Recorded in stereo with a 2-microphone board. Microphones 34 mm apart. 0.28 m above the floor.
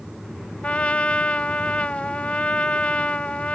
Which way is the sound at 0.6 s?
40° left (ahead or behind).